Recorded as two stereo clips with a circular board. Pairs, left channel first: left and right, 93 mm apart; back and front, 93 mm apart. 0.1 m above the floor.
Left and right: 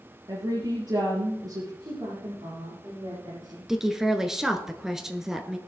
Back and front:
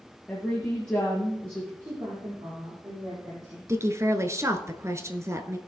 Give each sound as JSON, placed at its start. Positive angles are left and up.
{"t": 0.3, "sound": "a woman speaking", "azimuth_deg": -105, "distance_m": 2.5}
{"t": 1.8, "sound": "a woman speaking", "azimuth_deg": -50, "distance_m": 6.5}
{"t": 3.7, "sound": "a woman speaking", "azimuth_deg": -10, "distance_m": 1.2}